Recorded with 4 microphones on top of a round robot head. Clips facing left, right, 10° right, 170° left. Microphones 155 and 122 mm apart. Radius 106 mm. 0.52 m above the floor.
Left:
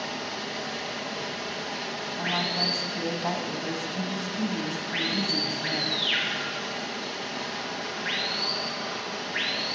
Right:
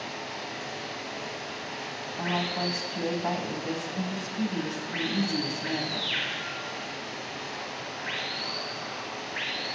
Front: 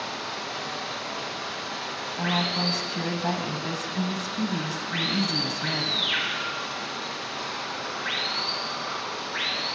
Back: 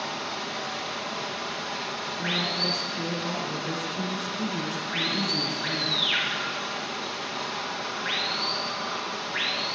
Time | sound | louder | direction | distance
0.0 | running water | left 3 dB, back 1 dB | 85° left | 8.5 m
2.2 | a woman speaking | right 2 dB, front 5 dB | straight ahead | 5 m